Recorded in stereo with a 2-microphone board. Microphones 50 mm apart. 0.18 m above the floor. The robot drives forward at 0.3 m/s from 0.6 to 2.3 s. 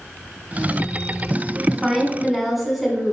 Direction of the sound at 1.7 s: Centre (ahead or behind).